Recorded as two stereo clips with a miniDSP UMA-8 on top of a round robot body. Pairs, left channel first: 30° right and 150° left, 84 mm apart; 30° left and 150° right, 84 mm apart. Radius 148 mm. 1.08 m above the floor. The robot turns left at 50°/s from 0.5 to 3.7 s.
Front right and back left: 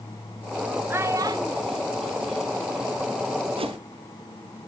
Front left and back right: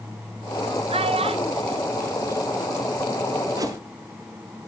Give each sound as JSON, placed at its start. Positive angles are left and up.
{"t": 0.9, "sound": "a child speaking", "azimuth_deg": -140, "distance_m": 1.2}
{"t": 3.6, "sound": "a whoosh", "azimuth_deg": 160, "distance_m": 1.3}